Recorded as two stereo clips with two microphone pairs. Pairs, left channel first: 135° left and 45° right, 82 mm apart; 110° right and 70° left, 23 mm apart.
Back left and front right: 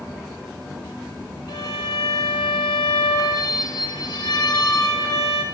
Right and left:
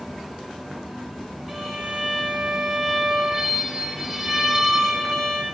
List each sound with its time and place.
1.5 s a violin: 155° left, 3 m